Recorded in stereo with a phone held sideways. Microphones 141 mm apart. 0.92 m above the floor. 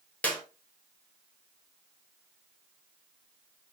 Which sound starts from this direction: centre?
A clap, at 0.2 s.